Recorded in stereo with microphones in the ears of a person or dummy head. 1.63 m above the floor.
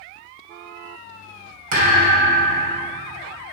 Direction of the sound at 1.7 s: 50° right (ahead or behind).